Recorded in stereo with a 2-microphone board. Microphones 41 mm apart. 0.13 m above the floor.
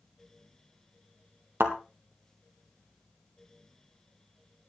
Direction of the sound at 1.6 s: 65° right (ahead or behind).